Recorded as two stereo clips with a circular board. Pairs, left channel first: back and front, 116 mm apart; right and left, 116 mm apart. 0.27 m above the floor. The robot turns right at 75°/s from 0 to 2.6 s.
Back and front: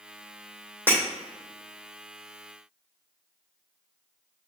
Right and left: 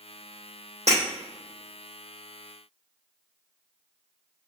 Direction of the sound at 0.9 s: 105° left.